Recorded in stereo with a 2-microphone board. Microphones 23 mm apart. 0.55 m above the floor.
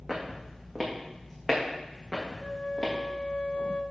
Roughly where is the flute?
Left.